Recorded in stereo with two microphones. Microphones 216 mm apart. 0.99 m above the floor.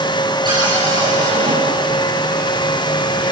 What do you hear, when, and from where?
0.5 s a cupboard door: 20° right (ahead or behind), 8 m